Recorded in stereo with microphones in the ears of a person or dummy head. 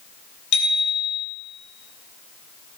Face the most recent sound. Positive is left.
turn(degrees=60)  # may be behind; listen again after turning